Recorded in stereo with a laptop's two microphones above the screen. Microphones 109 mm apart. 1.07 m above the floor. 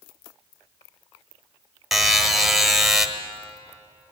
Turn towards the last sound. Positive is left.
turn(degrees=0)  # may be behind; listen again after turning